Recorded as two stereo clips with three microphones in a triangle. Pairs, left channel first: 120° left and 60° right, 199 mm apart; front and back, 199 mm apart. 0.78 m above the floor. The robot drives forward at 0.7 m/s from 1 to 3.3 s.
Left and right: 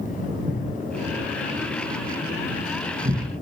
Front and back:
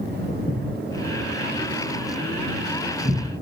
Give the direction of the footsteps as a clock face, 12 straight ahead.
2 o'clock.